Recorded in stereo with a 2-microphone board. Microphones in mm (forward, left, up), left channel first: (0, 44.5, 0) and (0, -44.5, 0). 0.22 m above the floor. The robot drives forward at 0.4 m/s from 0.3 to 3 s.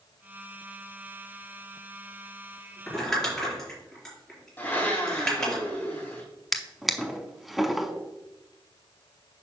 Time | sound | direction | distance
2.9 | crumpling | 5° left (ahead or behind) | 4 m
4.6 | a blender | 20° left (ahead or behind) | 3.5 m
6.5 | a drawer | centre (ahead or behind) | 0.8 m